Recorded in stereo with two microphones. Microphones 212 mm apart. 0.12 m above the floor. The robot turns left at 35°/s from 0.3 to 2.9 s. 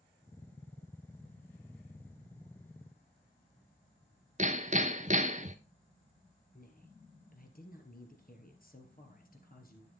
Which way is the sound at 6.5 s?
45° left (ahead or behind).